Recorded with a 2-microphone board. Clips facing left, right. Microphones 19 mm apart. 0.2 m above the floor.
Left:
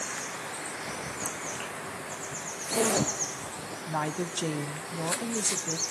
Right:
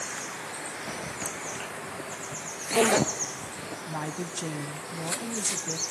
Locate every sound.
0.9 s a zipper: 70° right (ahead or behind), 1.8 m
3.9 s a woman speaking: 20° left (ahead or behind), 1.0 m